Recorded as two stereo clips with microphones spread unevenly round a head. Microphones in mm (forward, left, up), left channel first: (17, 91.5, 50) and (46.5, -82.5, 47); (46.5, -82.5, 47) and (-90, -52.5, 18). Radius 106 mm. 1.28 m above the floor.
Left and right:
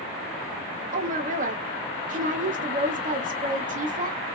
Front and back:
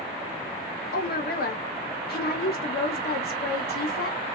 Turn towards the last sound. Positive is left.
turn(degrees=-35)